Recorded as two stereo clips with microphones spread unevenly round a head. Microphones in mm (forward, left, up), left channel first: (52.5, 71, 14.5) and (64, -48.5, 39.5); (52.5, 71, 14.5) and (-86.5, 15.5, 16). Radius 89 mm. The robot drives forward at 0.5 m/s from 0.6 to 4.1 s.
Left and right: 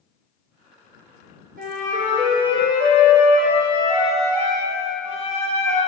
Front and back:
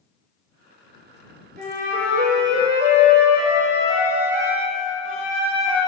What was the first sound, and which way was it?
A flute, 105° right.